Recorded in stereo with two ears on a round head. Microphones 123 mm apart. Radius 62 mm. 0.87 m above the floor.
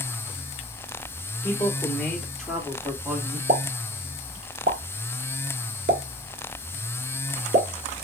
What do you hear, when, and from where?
1.4 s a man speaking: 15° left (ahead or behind), 2.5 m; by 3.4 s 20° right (ahead or behind), 1.6 m
3.5 s a pop: 65° right (ahead or behind), 1.3 m